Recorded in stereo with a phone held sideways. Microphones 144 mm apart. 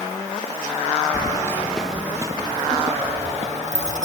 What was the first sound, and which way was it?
Keys jangling, 35° left (ahead or behind).